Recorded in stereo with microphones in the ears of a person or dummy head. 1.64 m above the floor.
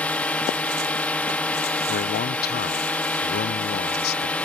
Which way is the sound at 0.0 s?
5° left (ahead or behind).